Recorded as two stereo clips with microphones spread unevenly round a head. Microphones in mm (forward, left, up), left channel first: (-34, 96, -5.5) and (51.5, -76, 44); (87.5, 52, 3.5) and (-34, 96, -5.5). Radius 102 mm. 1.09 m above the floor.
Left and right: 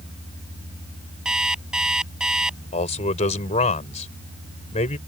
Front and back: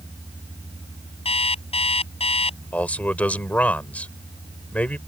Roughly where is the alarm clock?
Ahead.